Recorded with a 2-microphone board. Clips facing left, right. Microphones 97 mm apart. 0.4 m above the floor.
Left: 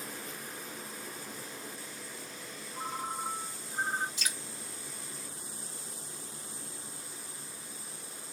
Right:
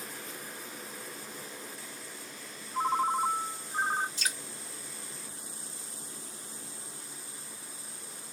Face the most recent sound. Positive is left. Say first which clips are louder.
# right 3 dB
turn(degrees=-35)  # may be behind; listen again after turning